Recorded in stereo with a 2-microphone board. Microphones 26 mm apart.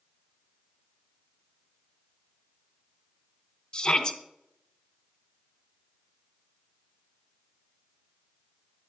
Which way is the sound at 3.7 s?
20° left (ahead or behind).